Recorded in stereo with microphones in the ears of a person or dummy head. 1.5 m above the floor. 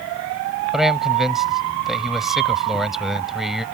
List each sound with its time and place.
0.7 s a man speaking: centre (ahead or behind)